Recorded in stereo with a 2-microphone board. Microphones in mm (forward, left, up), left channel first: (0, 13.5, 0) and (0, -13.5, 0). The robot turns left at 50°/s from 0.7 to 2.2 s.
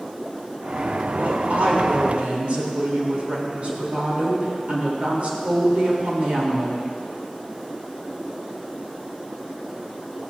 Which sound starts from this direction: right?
A woman speaking, at 1.1 s.